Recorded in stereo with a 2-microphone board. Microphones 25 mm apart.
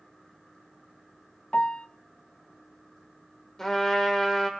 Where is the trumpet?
15° left (ahead or behind), 2 m.